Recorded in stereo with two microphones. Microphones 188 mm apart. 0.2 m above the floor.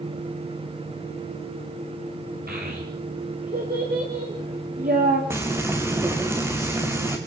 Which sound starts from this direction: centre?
Frying, at 5.3 s.